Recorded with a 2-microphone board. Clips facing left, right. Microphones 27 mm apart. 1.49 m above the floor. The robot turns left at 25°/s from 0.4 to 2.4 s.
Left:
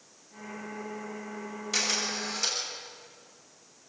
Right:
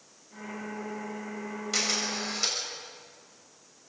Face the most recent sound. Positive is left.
turn(degrees=-25)  # may be behind; listen again after turning